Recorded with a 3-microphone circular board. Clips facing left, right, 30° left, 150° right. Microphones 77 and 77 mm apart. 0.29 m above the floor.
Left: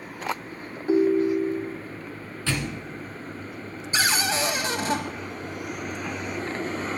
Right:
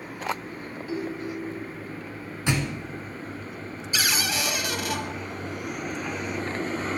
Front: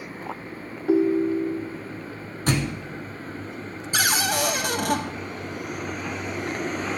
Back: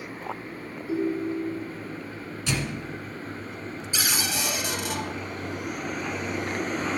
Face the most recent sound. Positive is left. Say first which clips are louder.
# left 3 dB, front 7 dB
turn(degrees=40)